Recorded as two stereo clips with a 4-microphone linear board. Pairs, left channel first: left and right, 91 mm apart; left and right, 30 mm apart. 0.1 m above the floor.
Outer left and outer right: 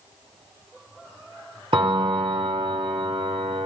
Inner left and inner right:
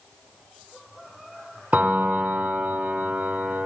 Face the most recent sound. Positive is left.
turn(degrees=-65)  # may be behind; listen again after turning